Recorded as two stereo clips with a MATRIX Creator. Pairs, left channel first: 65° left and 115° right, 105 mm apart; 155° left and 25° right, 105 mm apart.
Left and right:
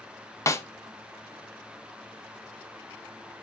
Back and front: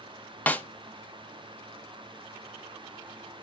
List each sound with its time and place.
0.5 s a snare drum: 95° left, 0.6 m